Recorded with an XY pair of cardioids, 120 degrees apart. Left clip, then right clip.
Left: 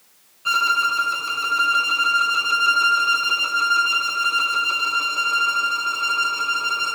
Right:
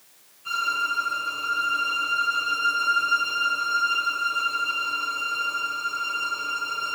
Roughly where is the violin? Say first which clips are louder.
Left 7 dB; ahead left.